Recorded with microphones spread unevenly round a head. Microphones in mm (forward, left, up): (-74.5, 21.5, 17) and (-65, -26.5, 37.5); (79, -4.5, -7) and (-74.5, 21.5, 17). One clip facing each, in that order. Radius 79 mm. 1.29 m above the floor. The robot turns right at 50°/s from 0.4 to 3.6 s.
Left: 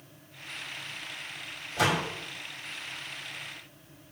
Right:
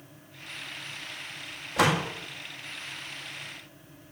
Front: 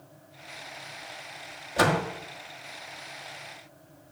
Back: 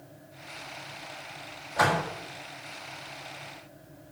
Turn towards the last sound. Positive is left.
turn(degrees=20)